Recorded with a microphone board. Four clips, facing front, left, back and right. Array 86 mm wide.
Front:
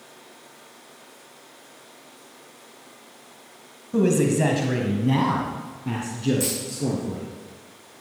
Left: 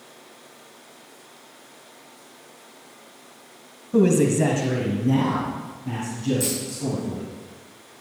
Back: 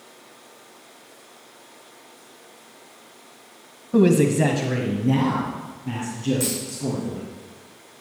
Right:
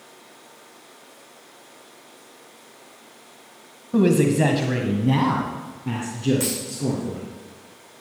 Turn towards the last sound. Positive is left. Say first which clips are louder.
# even, back 1 dB
turn(degrees=-90)